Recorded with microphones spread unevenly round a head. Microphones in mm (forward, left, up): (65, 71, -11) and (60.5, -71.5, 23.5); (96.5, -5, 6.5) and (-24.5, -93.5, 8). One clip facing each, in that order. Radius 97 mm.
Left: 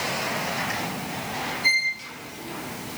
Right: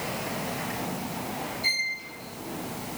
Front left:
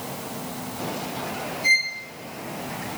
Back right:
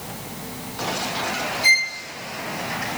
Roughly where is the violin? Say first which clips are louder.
Left 5 dB, back right 3 dB; behind.